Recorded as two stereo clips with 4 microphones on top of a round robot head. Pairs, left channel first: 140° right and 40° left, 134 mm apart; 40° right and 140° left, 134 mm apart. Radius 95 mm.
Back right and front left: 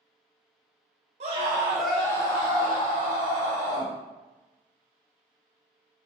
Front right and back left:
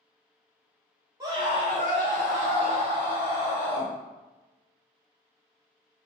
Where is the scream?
70° left, 0.6 m; by 3.9 s 170° right, 1.3 m.